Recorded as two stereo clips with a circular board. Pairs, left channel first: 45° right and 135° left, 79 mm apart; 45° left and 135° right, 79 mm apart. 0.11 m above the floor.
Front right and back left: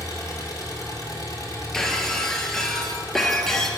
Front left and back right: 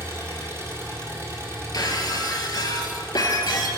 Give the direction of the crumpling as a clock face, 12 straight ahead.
No crumpling in this recording.